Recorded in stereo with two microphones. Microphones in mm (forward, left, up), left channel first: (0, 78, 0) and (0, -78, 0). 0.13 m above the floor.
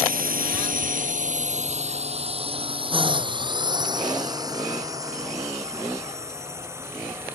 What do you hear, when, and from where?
0.0 s a drone: 65° right (ahead or behind); by 7.3 s 15° right (ahead or behind)